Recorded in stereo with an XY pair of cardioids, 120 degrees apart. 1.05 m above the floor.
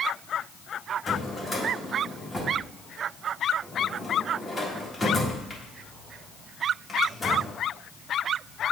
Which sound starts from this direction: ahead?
A drawer, at 1.1 s.